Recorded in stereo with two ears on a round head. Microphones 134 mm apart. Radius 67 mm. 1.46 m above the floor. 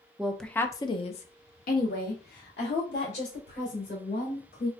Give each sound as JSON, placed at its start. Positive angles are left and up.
{"t": 0.2, "sound": "a woman speaking", "side_deg": -5, "distance_m": 0.6}